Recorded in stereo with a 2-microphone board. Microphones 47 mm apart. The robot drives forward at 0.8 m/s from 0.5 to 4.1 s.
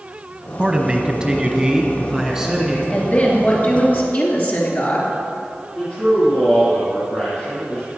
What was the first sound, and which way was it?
A man speaking, 20° right (ahead or behind).